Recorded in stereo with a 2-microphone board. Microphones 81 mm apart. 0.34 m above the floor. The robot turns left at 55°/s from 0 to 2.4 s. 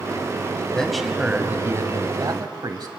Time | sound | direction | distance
0.7 | a man speaking | 15° left | 2 m